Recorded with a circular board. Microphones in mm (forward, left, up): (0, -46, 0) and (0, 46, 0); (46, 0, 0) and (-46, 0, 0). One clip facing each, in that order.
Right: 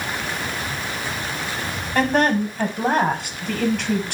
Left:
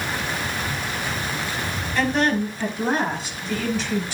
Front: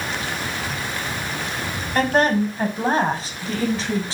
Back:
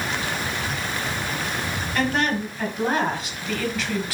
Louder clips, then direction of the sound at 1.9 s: Right 3 dB, front 6 dB; 50° right.